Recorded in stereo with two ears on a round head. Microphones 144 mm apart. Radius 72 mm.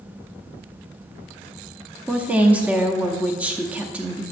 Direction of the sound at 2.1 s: 10° right (ahead or behind).